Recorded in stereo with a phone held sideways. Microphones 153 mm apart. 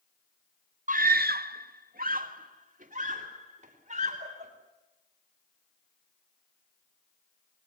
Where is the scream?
55° right (ahead or behind), 0.8 m; by 4.5 s 50° right (ahead or behind), 5 m.